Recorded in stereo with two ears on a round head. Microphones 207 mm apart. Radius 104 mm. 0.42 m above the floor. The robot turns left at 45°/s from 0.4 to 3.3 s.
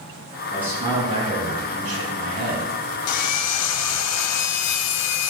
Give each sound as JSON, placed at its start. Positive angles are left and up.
{"t": 0.5, "sound": "a man speaking", "azimuth_deg": -5, "distance_m": 4.5}
{"t": 3.1, "sound": "sawing", "side_deg": 80, "distance_m": 0.6}